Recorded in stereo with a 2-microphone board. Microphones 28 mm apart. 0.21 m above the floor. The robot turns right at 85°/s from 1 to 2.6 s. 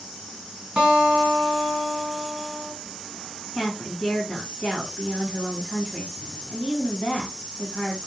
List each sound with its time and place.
0.8 s a guitar: 135° right, 2.5 m; by 2.7 s straight ahead, 2.5 m
3.5 s a woman speaking: 25° left (ahead or behind), 1.2 m